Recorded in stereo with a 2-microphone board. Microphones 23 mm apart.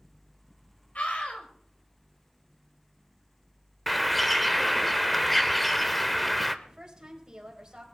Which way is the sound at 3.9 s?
10° left (ahead or behind).